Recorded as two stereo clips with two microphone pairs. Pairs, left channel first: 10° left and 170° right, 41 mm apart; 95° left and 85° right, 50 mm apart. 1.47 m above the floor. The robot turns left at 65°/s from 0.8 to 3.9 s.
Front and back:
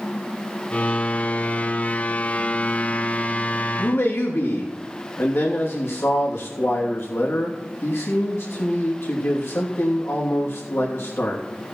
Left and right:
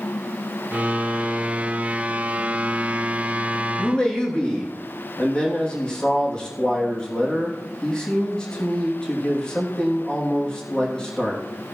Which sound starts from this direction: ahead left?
A man speaking, at 3.8 s.